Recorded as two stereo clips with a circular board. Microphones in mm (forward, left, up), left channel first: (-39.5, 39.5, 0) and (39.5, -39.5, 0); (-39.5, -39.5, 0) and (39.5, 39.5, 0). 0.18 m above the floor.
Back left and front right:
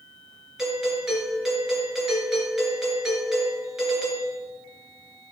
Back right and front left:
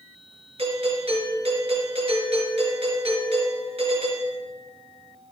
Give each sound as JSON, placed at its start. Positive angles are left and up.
{"t": 0.6, "sound": "a doorbell", "azimuth_deg": 40, "distance_m": 4.0}